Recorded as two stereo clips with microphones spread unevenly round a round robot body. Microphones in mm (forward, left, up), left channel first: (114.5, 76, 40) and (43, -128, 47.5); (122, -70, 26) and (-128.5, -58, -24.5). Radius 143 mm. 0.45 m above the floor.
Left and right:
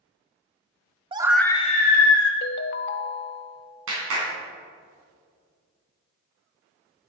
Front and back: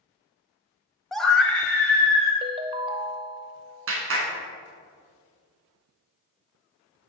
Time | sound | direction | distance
1.1 | a scream | 120° right | 0.8 m
2.4 | a ringtone | 110° left | 0.5 m
3.9 | a clap | 150° right | 3 m